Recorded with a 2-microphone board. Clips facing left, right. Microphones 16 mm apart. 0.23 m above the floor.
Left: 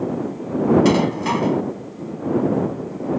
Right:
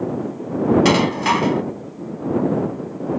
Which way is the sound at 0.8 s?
30° right (ahead or behind).